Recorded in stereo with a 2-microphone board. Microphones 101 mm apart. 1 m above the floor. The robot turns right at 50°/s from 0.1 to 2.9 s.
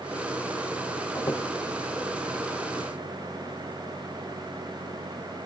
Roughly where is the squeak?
Left.